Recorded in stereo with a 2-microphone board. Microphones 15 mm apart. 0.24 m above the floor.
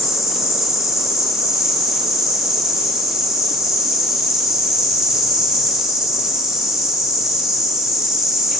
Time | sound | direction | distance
0.0 | an insect | 70° right (ahead or behind) | 1.4 m